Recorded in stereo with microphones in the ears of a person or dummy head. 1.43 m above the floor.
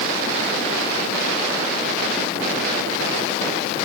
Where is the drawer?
I don't hear a drawer.